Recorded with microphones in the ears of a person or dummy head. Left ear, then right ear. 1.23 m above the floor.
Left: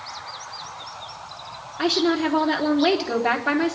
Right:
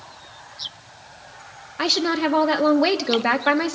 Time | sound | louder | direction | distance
1.8 | a woman speaking | right 1 dB | 70° right (ahead or behind) | 1.0 m